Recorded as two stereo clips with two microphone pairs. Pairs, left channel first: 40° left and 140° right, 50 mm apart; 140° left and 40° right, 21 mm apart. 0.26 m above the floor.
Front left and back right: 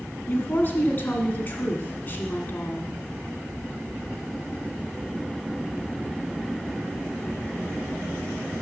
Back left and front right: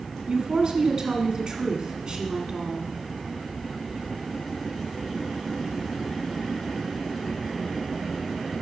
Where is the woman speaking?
5° right, 2 m.